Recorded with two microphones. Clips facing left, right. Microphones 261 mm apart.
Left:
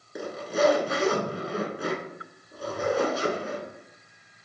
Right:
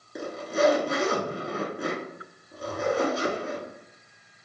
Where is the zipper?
Centre (ahead or behind), 0.7 m.